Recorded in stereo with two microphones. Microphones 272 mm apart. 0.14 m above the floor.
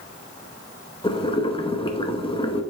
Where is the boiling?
20° left (ahead or behind), 0.8 m.